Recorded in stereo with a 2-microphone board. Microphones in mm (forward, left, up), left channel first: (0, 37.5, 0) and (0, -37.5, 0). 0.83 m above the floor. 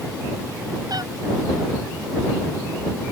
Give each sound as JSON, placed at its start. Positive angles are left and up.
{"t": 0.9, "sound": "a cat meowing", "side_deg": -60}